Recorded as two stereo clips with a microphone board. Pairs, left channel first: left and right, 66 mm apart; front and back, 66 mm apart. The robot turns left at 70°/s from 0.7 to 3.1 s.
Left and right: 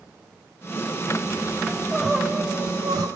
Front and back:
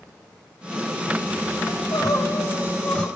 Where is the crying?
15° left, 4.5 m; by 3.1 s 85° right, 4.5 m.